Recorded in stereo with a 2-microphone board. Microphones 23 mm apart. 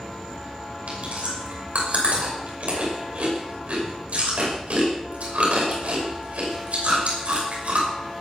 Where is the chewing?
75° right (ahead or behind), 6 m.